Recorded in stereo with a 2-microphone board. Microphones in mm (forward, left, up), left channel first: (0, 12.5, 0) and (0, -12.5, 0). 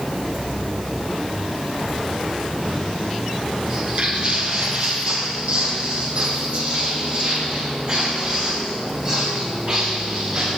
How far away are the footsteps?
About 2 m.